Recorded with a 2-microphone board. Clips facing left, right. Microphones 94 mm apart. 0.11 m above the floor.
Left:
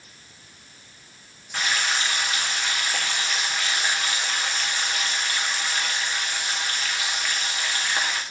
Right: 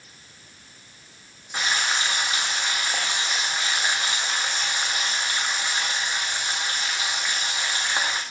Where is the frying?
20° right (ahead or behind), 3 m.